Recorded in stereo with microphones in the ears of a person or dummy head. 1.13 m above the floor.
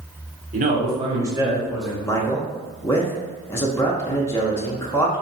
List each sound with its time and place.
0.5 s a man speaking: 45° right (ahead or behind), 1.0 m; by 1.9 s centre (ahead or behind), 1.2 m
2.0 s a man speaking: 15° left (ahead or behind), 0.8 m